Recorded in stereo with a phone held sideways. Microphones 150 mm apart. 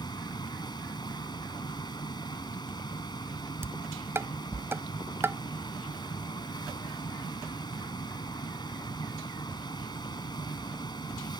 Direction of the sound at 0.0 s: 25° left (ahead or behind).